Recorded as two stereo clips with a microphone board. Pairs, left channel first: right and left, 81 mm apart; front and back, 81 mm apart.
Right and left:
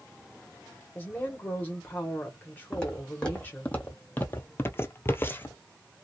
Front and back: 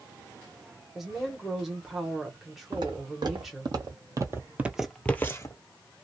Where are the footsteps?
170° right, 1.4 m; by 5.6 s 30° right, 0.6 m.